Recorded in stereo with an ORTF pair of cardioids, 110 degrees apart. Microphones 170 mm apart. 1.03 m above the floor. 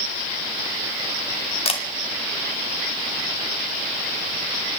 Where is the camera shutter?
40° left, 2 m.